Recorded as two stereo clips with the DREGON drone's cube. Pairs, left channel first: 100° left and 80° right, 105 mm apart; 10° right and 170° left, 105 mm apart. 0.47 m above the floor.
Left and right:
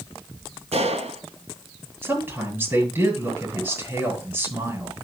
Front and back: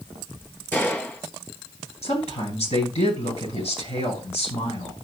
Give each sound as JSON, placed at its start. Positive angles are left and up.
{"t": 0.7, "sound": "a gunshot", "azimuth_deg": -80, "distance_m": 3.0}
{"t": 2.0, "sound": "a woman speaking", "azimuth_deg": -10, "distance_m": 9.0}